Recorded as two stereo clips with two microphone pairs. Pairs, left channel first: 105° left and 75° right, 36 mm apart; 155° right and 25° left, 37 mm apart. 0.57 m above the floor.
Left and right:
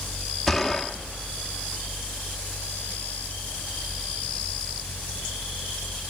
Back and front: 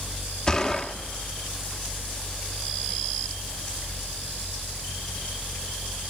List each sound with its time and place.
0.5 s a gunshot: 165° right, 0.7 m